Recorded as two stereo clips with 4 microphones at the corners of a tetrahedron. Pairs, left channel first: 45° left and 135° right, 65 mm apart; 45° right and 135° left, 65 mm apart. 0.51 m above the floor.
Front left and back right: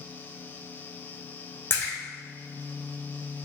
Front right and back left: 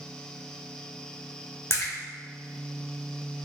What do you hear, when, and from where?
1.7 s a splash: 5° right, 1.3 m